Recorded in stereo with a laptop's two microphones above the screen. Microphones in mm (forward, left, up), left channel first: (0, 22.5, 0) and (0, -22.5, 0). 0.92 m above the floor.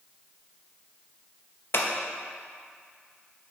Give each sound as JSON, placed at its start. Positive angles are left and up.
{"t": 1.7, "sound": "scissors", "side_deg": 55, "distance_m": 0.7}